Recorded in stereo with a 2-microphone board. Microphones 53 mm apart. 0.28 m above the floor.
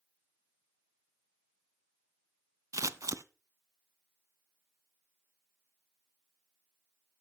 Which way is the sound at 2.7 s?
80° right.